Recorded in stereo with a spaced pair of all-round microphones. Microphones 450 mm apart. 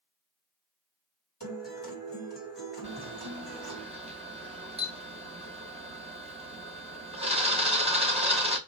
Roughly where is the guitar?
Left.